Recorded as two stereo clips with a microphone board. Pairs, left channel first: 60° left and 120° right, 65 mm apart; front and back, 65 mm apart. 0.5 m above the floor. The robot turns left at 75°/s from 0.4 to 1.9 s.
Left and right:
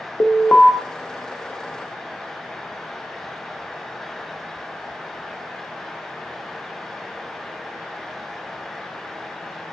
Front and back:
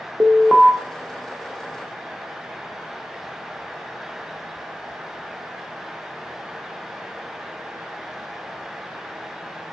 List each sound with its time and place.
0.2 s an alarm: 125° left, 0.5 m; by 0.7 s 105° left, 0.5 m